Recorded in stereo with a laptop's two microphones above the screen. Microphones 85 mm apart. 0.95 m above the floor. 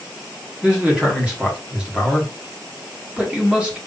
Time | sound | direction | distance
0.6 | a man speaking | 15° right (ahead or behind) | 1.5 m